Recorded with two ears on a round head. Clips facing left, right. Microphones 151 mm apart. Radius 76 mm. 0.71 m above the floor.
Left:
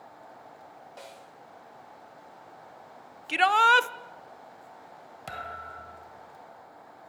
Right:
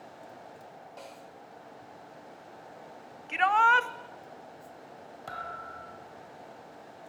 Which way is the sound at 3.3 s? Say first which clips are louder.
Left 2 dB; 40° left (ahead or behind).